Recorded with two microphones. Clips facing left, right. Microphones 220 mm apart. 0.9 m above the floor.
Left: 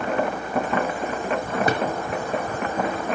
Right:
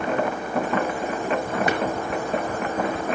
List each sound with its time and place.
1.7 s a drawer: 35° left (ahead or behind), 4 m